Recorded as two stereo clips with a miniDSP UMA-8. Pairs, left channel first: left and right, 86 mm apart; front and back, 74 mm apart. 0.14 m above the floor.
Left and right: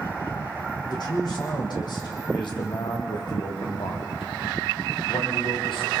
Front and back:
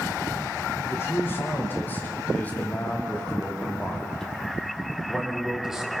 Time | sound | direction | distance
0.9 | a man speaking | 55° left | 5.5 m